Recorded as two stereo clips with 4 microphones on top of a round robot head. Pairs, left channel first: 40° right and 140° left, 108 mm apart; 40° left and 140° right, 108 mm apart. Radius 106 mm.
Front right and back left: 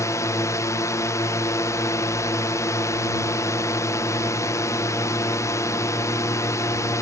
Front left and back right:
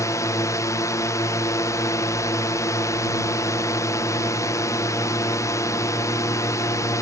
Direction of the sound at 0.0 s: Straight ahead.